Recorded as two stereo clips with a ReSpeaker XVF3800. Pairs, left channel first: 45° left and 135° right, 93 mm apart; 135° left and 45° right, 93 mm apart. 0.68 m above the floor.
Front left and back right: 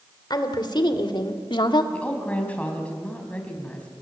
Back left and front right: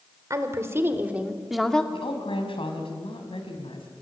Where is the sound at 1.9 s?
120° left, 4.5 m.